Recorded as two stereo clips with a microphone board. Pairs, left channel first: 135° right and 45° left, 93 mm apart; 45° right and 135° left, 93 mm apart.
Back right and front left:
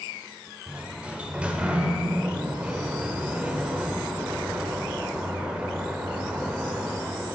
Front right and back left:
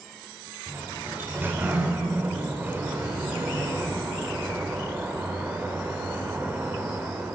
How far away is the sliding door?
About 0.6 m.